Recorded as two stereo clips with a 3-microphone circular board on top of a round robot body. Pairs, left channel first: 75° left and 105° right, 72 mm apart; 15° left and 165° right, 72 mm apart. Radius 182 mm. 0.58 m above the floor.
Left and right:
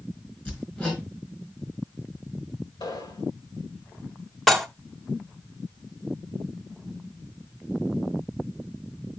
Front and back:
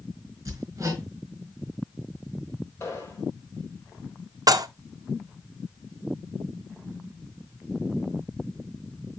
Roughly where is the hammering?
Behind left.